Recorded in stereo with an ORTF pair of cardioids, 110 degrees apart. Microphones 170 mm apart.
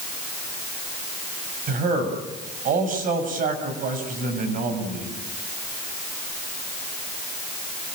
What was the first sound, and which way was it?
A man speaking, 55° right.